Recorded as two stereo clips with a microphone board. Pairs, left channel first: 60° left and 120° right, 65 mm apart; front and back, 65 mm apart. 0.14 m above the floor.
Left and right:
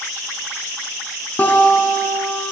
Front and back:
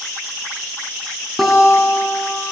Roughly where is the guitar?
Left.